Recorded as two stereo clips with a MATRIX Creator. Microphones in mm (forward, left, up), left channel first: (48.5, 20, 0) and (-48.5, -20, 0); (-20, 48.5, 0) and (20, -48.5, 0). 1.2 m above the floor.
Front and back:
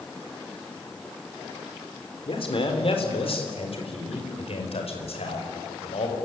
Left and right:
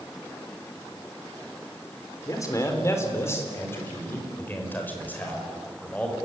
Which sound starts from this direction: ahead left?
A man speaking, at 2.3 s.